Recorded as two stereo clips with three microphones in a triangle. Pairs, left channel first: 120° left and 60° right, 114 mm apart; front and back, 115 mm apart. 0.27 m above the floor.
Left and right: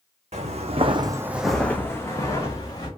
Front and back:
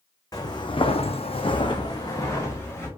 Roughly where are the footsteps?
Ahead right.